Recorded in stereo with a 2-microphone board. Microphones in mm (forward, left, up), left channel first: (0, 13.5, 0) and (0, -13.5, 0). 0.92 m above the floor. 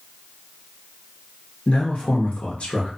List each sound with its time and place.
1.7 s a man speaking: 55° left (ahead or behind), 1.0 m